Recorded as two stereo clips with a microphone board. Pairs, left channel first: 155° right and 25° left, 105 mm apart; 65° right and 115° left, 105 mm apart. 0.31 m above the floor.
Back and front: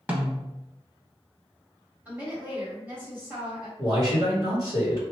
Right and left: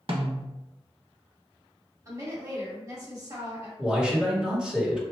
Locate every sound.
0.1 s a snare drum: 95° left, 0.7 m
2.0 s a woman speaking: 85° left, 1.8 m
3.8 s a man speaking: 35° left, 1.4 m